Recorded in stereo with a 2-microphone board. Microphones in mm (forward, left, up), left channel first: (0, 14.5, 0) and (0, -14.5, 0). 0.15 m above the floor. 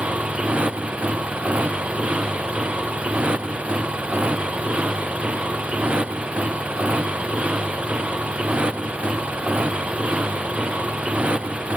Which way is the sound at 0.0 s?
40° right (ahead or behind).